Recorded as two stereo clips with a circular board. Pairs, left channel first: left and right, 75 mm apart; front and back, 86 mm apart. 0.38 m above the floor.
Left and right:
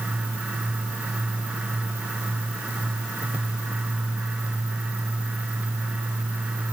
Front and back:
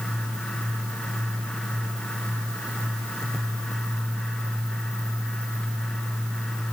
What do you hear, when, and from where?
Only background noise.